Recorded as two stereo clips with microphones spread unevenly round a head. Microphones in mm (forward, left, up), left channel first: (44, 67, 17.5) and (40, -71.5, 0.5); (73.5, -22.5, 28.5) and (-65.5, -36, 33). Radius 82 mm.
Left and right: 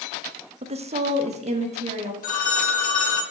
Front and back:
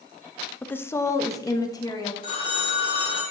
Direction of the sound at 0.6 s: 70° right.